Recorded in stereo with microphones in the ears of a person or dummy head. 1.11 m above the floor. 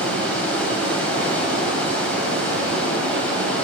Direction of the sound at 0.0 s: 5° left (ahead or behind).